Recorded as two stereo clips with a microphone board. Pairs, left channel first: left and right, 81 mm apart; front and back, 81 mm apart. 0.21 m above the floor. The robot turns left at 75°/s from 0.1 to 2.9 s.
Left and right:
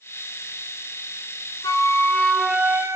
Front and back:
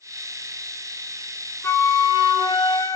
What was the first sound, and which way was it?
A flute, 60° left.